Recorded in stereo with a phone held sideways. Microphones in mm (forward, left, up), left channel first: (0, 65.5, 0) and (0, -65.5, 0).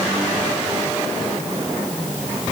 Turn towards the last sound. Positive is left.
No sound to turn to.